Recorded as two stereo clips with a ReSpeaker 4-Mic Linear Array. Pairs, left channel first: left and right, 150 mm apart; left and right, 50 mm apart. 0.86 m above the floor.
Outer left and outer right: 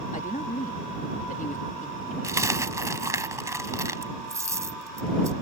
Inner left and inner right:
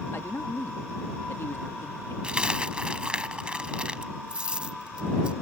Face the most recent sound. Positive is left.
turn(degrees=-20)  # may be behind; listen again after turning